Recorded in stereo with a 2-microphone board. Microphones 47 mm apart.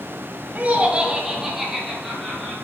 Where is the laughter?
35° right (ahead or behind), 1.4 m; by 2.5 s 5° left (ahead or behind), 3.5 m.